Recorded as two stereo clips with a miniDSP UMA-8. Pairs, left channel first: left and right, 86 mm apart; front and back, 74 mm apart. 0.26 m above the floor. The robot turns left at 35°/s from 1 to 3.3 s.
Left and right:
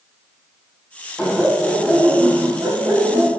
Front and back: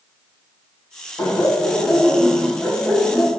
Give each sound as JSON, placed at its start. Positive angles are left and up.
{"t": 1.2, "sound": "laughter", "azimuth_deg": -5, "distance_m": 2.0}